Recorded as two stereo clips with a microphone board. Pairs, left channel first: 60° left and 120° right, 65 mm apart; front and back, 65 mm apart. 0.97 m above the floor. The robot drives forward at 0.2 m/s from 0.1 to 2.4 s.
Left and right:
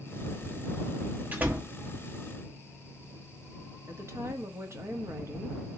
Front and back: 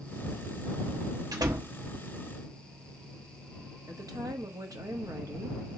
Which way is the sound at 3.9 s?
165° right.